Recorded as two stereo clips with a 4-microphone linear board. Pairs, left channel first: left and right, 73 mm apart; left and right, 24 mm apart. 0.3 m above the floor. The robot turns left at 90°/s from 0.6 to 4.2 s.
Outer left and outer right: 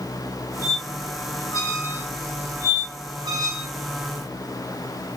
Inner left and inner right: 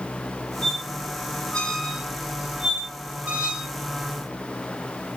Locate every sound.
0.6 s a squeak: 45° left (ahead or behind), 2 m; by 3.7 s 40° right (ahead or behind), 2 m